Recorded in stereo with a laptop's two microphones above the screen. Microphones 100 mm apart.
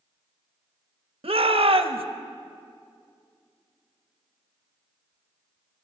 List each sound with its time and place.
1.2 s a shout: 75° right (ahead or behind), 0.7 m